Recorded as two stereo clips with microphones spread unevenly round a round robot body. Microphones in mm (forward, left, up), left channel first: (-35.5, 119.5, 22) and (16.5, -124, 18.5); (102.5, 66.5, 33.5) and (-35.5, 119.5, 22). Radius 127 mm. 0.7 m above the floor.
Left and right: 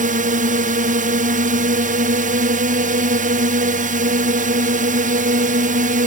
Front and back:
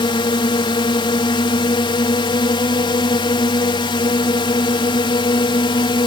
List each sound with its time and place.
0.0 s a drone: 55° right